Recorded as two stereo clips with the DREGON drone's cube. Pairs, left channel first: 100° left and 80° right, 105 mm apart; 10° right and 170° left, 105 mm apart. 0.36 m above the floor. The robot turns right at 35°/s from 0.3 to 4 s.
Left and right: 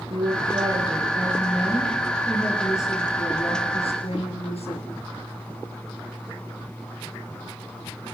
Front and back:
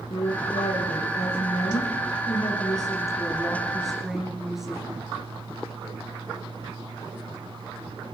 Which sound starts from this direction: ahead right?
A woman speaking, at 0.1 s.